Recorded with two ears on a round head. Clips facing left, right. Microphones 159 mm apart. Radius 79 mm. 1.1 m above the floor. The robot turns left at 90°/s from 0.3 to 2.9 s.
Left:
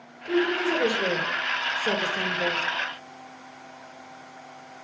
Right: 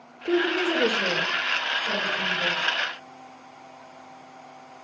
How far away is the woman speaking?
About 1.4 m.